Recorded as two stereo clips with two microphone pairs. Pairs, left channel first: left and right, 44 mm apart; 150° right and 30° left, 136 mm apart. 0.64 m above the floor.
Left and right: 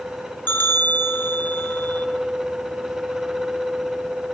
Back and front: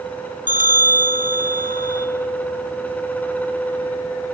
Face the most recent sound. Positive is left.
turn(degrees=45)